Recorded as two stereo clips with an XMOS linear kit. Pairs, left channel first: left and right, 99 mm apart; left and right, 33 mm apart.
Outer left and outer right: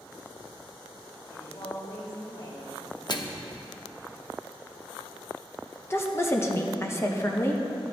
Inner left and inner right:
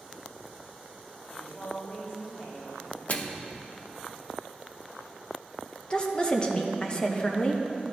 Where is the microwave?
45° left (ahead or behind), 0.7 m.